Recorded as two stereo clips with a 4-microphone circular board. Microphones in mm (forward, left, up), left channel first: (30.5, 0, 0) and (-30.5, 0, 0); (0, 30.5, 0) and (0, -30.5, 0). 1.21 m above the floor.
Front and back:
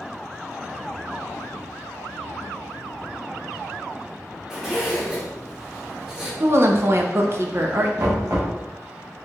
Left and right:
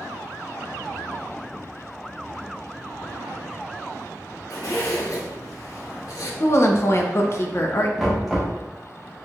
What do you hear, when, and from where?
4.5 s a zipper: 100° left, 1.3 m
6.4 s a woman speaking: 135° left, 0.6 m
8.0 s knocking: straight behind, 1.1 m